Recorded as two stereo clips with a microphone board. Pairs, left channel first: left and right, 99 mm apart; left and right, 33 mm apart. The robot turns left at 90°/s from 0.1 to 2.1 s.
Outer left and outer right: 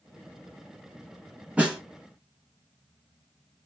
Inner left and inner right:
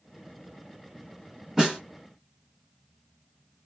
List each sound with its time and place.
1.6 s a snare drum: 15° right (ahead or behind), 1.5 m; by 1.8 s centre (ahead or behind), 1.5 m